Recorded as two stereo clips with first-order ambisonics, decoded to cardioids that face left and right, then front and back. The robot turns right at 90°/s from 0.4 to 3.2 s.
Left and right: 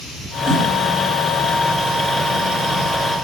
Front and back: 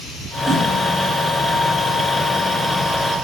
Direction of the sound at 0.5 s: 110° right.